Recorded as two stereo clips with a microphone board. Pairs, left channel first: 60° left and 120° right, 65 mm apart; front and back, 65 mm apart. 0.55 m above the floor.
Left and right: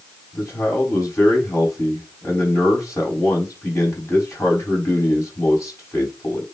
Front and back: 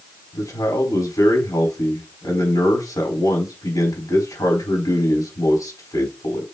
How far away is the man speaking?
About 4.5 m.